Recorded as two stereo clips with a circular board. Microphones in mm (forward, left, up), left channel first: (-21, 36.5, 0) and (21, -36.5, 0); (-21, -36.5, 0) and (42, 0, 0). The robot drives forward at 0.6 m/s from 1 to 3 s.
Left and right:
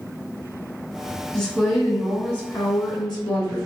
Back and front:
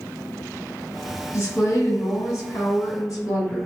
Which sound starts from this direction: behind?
A woman speaking, at 1.3 s.